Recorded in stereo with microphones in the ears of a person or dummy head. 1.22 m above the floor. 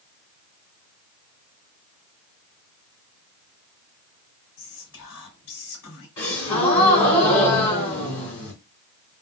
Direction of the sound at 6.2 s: 25° left (ahead or behind).